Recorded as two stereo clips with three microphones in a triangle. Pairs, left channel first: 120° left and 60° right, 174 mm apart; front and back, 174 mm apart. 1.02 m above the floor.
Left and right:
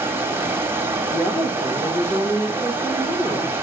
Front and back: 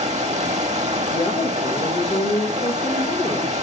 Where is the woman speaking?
45° left, 1.2 m.